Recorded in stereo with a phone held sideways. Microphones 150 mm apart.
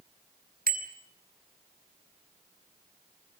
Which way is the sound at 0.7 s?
85° right.